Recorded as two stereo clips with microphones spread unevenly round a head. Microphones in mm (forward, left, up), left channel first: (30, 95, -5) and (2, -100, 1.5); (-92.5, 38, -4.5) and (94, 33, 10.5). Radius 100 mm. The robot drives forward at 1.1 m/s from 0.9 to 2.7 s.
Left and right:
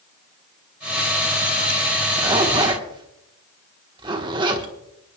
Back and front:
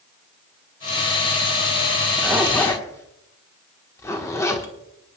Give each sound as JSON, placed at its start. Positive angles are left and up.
{"t": 2.2, "sound": "a zipper", "azimuth_deg": -55, "distance_m": 1.4}